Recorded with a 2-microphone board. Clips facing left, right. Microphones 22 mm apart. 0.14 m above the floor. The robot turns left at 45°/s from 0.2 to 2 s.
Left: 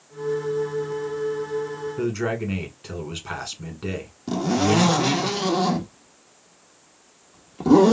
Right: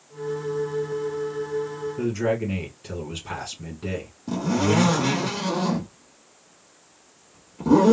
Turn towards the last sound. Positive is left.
turn(degrees=35)  # may be behind; listen again after turning